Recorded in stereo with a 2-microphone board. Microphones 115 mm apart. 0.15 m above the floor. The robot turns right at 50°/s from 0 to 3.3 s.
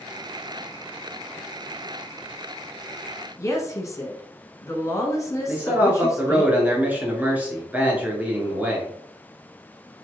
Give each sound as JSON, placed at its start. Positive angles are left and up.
{"t": 3.4, "sound": "a woman speaking", "side_deg": 25, "distance_m": 1.3}
{"t": 5.5, "sound": "a man speaking", "side_deg": -15, "distance_m": 1.8}